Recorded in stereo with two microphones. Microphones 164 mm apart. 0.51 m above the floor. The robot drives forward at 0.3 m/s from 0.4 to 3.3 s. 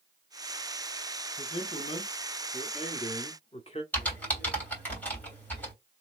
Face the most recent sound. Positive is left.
turn(degrees=10)  # may be behind; listen again after turning